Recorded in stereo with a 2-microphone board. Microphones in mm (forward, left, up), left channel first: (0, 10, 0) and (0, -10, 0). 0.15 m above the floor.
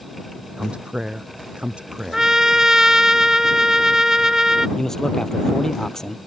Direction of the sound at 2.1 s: 25° right (ahead or behind).